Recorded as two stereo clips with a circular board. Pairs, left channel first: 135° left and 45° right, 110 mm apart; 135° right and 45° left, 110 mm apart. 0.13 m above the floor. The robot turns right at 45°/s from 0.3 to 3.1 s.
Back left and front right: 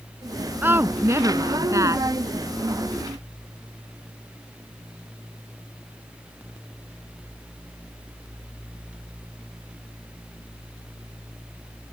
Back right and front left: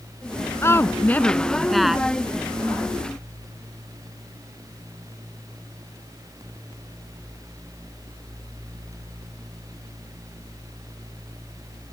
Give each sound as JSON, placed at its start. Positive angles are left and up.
{"t": 0.6, "sound": "a woman speaking", "azimuth_deg": -100}